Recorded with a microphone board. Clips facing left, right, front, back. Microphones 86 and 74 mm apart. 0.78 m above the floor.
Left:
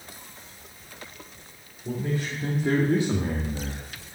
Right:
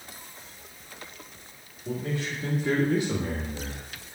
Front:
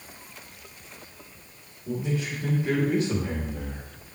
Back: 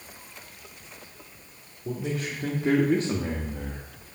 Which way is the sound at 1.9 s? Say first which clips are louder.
Left 2 dB, front 1 dB; 160° left.